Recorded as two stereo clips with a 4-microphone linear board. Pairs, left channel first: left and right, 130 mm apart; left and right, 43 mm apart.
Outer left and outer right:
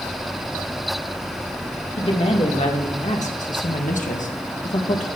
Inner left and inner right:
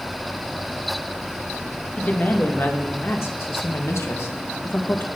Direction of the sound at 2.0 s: 45° left (ahead or behind).